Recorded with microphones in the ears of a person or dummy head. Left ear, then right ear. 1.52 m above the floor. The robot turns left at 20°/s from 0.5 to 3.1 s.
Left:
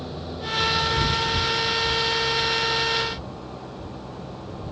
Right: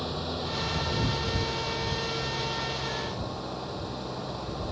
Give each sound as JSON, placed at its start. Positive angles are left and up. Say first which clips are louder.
{"t": 0.0, "sound": "an engine running", "louder": "right 1 dB", "azimuth_deg": -30}